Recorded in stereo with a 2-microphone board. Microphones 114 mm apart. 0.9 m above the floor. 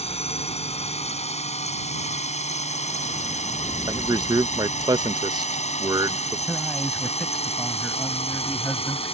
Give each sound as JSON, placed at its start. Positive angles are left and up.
{"t": 0.0, "sound": "a drone", "side_deg": 65}
{"t": 3.9, "sound": "a man speaking", "side_deg": -35}
{"t": 6.5, "sound": "a man speaking", "side_deg": 0}